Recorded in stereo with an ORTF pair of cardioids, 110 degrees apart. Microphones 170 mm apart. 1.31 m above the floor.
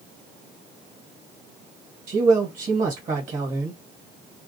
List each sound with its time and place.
2.1 s a man speaking: 50° right, 1.2 m